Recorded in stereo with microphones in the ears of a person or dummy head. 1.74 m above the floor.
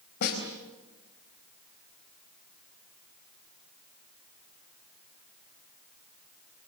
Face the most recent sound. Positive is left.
turn(degrees=55)  # may be behind; listen again after turning